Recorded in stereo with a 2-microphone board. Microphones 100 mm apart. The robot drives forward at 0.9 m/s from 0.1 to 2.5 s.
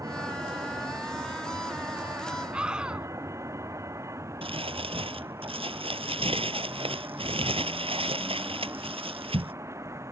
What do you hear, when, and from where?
0.0 s a vehicle: 30° right (ahead or behind)
2.5 s a scream: 10° right (ahead or behind)
4.4 s crumpling: 70° right (ahead or behind)